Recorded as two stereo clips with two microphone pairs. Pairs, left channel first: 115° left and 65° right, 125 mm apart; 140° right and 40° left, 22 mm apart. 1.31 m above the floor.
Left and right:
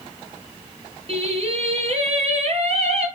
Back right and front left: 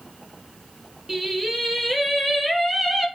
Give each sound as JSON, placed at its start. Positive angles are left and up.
{"t": 1.1, "sound": "singing", "azimuth_deg": -30, "distance_m": 5.5}